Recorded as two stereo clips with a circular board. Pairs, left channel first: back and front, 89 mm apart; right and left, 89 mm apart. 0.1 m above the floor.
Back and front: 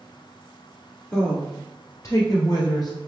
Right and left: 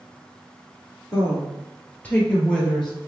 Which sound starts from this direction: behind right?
A woman speaking, at 1.1 s.